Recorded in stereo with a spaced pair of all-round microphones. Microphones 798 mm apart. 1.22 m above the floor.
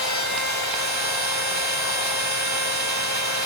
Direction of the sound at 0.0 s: 10° left (ahead or behind).